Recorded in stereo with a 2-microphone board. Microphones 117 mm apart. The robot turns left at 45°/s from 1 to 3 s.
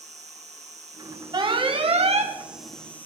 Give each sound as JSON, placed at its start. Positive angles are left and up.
{"t": 0.0, "sound": "an insect", "azimuth_deg": -105, "distance_m": 1.7}
{"t": 1.3, "sound": "an alarm", "azimuth_deg": -45, "distance_m": 1.2}